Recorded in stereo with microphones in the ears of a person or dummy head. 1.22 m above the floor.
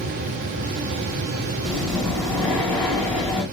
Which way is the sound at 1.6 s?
10° left (ahead or behind).